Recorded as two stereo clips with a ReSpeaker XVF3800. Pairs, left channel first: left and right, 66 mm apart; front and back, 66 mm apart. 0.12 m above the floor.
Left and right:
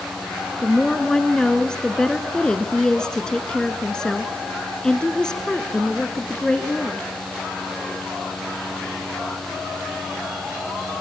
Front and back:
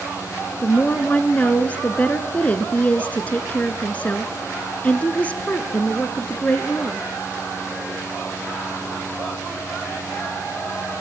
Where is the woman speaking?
25° left, 1.1 m.